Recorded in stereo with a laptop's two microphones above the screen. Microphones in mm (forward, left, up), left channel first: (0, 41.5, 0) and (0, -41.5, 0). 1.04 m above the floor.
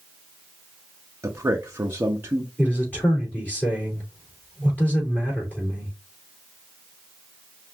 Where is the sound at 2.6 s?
20° left (ahead or behind), 3.5 m.